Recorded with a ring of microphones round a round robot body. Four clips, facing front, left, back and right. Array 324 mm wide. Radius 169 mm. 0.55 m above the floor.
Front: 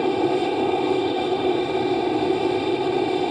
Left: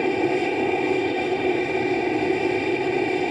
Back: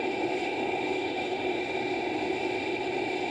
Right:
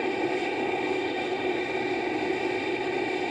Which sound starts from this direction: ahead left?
An aircraft, at 0.0 s.